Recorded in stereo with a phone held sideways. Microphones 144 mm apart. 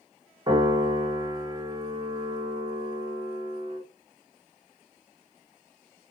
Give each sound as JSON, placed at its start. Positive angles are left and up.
{"t": 0.5, "sound": "a piano", "side_deg": -30, "distance_m": 1.3}